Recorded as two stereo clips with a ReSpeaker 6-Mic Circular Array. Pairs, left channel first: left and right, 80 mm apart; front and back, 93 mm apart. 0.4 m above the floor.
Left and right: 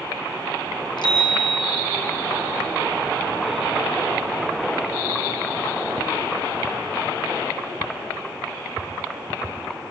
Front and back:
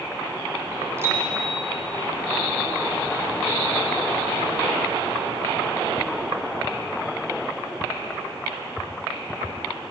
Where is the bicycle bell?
120° left, 5.5 m.